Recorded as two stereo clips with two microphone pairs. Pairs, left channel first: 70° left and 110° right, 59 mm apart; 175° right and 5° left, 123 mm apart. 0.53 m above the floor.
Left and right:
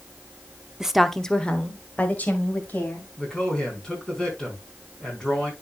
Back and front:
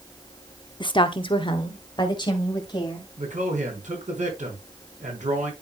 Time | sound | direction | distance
0.8 | a woman speaking | straight behind | 0.7 m
3.2 | a man speaking | 5° right | 4.5 m